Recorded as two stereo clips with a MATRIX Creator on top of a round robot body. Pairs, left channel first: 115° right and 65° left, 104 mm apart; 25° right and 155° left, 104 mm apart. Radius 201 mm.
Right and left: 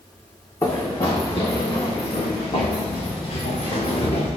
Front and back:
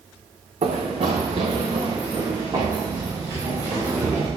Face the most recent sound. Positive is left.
turn(degrees=-130)